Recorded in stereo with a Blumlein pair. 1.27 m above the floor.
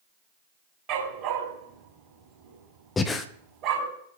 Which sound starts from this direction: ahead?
Breathing, at 3.0 s.